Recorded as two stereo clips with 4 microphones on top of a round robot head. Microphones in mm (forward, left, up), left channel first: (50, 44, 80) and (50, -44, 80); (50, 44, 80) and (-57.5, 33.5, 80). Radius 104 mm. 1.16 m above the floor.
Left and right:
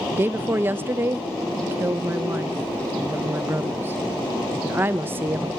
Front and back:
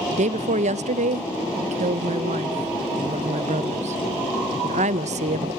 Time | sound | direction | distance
0.1 | a woman speaking | 160° right | 0.8 m